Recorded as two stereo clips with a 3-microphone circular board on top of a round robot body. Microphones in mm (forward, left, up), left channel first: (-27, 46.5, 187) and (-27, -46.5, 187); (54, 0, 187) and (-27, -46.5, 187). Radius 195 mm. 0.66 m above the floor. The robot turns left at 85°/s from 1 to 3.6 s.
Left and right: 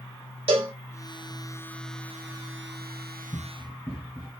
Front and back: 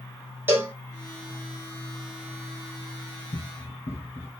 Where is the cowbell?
80° right, 2.5 m.